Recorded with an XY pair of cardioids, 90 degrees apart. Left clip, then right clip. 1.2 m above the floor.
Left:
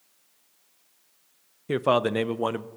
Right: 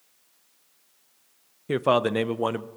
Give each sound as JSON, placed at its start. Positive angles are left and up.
{"t": 1.7, "sound": "a man speaking", "azimuth_deg": 0, "distance_m": 0.5}